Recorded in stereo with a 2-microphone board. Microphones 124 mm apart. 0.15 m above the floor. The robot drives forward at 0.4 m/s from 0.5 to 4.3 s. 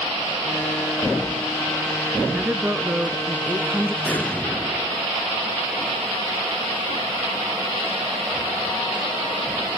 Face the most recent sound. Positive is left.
turn(degrees=15)  # may be behind; listen again after turning